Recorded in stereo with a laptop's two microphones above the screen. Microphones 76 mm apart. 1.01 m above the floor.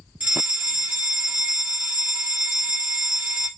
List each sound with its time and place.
0.2 s a fire alarm: 20° right (ahead or behind), 1.2 m